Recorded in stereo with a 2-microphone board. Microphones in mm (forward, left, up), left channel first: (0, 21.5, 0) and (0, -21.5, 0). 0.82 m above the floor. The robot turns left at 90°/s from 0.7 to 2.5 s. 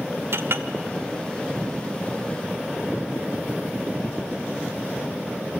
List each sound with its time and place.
0.3 s a clink: 70° right (ahead or behind), 1.4 m